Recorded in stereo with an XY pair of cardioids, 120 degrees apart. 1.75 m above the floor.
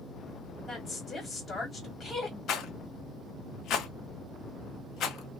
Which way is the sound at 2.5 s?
65° left.